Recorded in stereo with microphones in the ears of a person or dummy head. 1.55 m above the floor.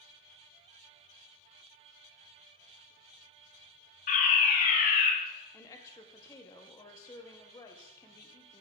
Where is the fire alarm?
40° left (ahead or behind), 1.4 m.